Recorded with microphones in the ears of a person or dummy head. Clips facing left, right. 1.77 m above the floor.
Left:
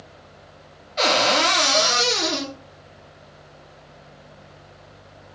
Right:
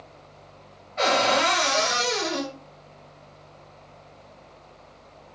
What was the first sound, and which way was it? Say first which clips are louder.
A cupboard door: left 1 dB; 50° left (ahead or behind).